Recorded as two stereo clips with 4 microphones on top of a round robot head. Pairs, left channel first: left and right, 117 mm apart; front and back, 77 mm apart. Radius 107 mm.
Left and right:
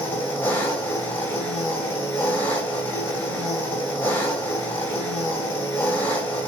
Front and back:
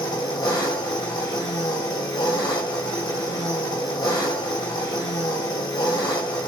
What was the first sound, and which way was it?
An engine running, 20° left.